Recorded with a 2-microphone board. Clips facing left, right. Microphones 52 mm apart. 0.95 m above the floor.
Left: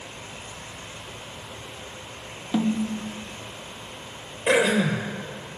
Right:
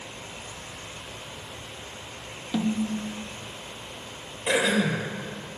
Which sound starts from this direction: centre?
A snare drum, at 2.5 s.